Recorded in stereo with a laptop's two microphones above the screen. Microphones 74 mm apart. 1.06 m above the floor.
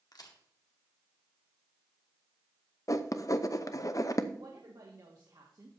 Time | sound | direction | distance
0.1 | a crack | 60° left (ahead or behind) | 1.6 m
2.9 | writing | 50° left (ahead or behind) | 0.7 m
4.3 | a woman speaking | 55° right (ahead or behind) | 1.7 m